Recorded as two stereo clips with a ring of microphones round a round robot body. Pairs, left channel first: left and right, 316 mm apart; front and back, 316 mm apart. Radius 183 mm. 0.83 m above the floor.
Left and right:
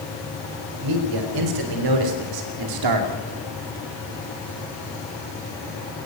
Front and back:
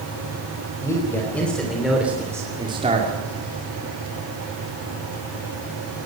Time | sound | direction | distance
0.8 | a man speaking | 85° right | 4 m